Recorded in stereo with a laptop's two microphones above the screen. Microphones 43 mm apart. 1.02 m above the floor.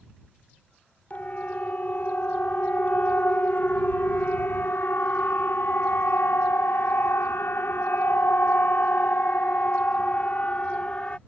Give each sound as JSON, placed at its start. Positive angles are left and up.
{"t": 1.1, "sound": "a siren", "side_deg": 40}